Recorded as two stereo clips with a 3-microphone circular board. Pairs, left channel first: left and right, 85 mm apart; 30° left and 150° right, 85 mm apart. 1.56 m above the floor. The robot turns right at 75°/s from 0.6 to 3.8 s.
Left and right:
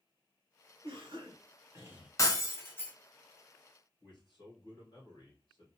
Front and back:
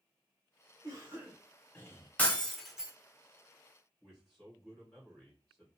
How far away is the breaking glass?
About 0.8 m.